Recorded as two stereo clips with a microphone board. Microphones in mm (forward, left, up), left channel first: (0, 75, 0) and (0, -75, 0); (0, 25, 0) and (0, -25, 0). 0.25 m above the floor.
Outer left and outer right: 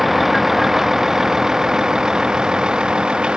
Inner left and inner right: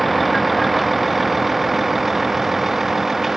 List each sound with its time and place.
0.0 s a vehicle: centre (ahead or behind); by 3.4 s 5° right (ahead or behind)